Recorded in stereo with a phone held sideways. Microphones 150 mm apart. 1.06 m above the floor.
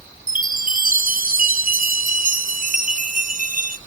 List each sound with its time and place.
0.3 s a chime: 60° right (ahead or behind), 0.8 m